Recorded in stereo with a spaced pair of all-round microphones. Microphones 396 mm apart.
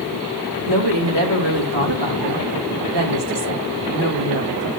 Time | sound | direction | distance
0.7 | a woman speaking | 85° right | 2.5 m